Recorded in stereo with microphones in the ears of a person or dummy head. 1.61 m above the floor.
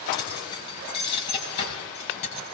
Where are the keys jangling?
20° left (ahead or behind), 8 m; by 2.5 s 30° left (ahead or behind), 8.5 m.